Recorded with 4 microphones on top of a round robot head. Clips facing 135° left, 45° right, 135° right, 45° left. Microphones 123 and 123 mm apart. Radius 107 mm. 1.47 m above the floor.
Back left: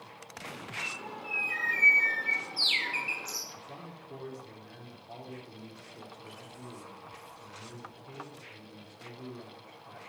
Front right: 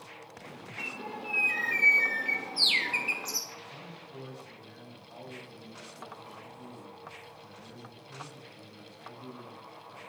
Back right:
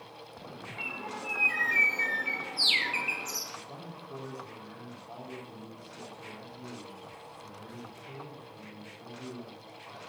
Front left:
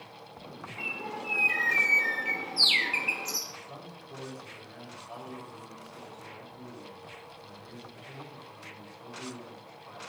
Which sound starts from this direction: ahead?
A bird, at 0.8 s.